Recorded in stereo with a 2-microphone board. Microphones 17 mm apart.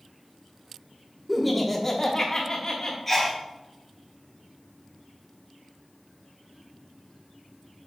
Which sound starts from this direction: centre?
Laughter, at 1.3 s.